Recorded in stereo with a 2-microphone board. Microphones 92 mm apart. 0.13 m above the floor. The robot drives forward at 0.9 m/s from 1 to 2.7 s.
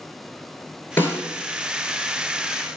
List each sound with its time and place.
1.0 s a snare drum: 25° left (ahead or behind), 1.5 m